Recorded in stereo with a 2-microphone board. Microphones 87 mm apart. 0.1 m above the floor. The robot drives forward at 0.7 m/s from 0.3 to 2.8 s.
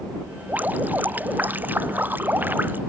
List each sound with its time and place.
0.5 s dripping: 20° right (ahead or behind)